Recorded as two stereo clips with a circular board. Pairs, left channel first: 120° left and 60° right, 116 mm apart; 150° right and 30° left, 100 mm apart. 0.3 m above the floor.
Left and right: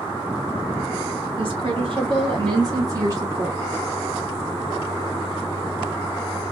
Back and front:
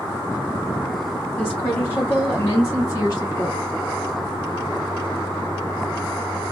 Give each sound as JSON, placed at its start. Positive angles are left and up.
{"t": 1.4, "sound": "a woman speaking", "azimuth_deg": -70, "distance_m": 2.0}